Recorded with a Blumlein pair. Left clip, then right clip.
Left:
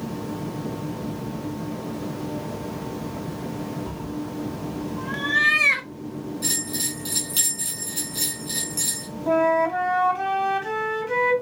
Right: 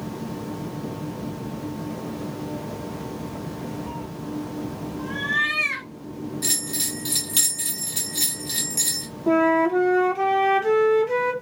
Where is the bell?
15° right, 1.4 m.